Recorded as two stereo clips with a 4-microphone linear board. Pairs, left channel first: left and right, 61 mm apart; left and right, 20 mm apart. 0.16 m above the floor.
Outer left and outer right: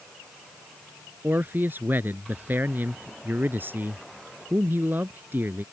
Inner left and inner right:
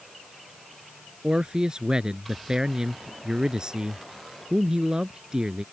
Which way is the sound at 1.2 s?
35° right (ahead or behind).